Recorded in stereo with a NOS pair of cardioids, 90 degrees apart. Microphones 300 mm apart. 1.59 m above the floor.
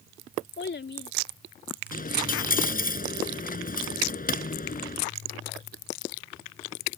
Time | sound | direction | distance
0.6 | a child speaking | 40° left | ?
1.9 | a dropped coin | 30° left | ?